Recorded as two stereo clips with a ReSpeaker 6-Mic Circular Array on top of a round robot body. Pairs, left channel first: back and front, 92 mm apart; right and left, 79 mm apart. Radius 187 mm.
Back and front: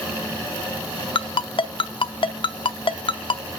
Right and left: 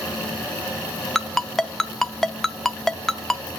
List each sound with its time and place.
1.1 s a ringtone: 175° right, 0.8 m